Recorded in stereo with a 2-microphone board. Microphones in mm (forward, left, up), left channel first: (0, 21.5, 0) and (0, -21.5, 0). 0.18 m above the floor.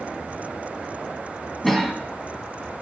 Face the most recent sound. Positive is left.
turn(degrees=5)  # may be behind; listen again after turning